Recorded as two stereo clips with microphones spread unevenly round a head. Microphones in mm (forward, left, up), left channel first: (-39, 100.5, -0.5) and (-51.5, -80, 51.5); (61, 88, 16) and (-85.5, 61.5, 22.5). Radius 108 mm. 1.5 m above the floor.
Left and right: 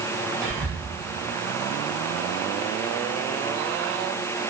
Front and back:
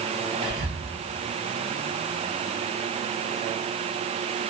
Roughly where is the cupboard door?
No cupboard door in this recording.